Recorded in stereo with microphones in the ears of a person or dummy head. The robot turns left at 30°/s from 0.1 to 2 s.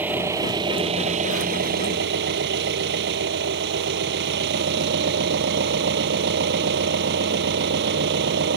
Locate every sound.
0.0 s an engine running: 15° right; by 8.6 s 75° right